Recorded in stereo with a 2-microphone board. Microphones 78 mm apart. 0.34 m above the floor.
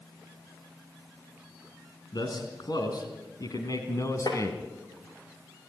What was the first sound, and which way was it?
A man speaking, 60° left (ahead or behind).